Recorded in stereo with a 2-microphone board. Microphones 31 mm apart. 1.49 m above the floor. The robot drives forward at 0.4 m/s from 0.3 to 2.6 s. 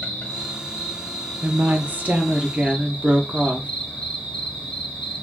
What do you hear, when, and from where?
0.0 s an insect: 35° left (ahead or behind), 1.5 m; by 5.2 s 25° left (ahead or behind), 1.8 m
1.4 s a woman speaking: 65° right (ahead or behind), 0.5 m; by 3.7 s 40° right (ahead or behind), 0.8 m